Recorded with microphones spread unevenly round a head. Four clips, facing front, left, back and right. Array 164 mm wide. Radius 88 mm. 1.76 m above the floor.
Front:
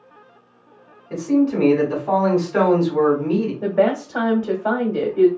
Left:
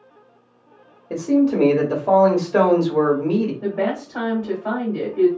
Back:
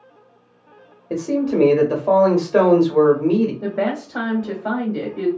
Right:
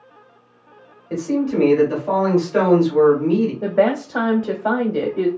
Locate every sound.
1.1 s a man speaking: 155° left, 1.5 m
3.6 s a woman speaking: 65° right, 1.2 m